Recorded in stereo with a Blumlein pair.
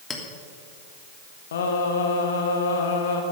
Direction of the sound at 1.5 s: 60° left.